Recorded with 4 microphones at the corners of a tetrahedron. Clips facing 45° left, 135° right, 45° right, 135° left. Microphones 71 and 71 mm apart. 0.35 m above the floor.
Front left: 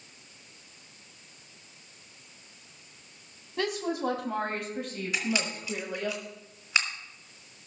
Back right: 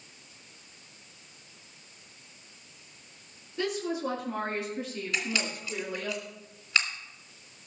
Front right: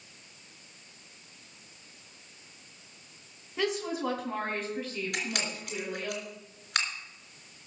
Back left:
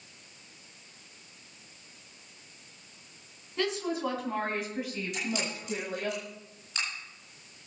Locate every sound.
3.6 s a woman speaking: 35° left, 3 m; by 6.1 s 100° left, 2 m
5.1 s a camera shutter: 30° right, 3 m